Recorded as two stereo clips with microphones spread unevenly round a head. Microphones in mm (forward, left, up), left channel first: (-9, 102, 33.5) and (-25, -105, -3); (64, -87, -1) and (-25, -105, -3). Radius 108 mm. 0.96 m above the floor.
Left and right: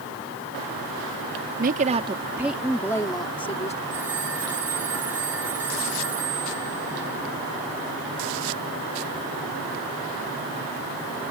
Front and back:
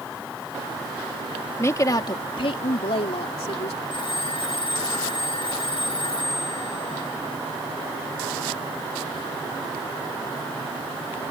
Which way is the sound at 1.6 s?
50° right.